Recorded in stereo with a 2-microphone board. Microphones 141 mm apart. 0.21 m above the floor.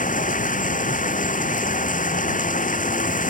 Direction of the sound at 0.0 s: 65° left (ahead or behind).